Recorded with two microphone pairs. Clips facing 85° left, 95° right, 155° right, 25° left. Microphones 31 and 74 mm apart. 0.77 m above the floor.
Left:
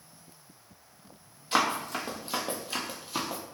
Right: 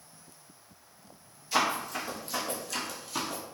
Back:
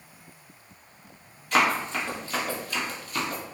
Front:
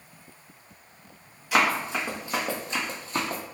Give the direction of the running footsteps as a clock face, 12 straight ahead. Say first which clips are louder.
Left 1 dB, even; 8 o'clock.